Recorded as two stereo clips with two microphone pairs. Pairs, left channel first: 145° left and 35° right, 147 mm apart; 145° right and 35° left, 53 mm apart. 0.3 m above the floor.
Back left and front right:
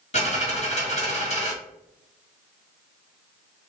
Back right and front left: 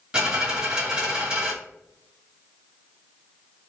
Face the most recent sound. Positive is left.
turn(degrees=105)